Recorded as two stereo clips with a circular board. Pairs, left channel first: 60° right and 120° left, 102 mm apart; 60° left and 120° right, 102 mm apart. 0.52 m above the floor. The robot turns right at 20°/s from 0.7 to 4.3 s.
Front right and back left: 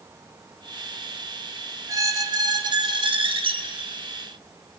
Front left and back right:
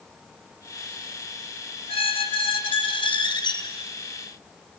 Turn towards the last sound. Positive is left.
turn(degrees=115)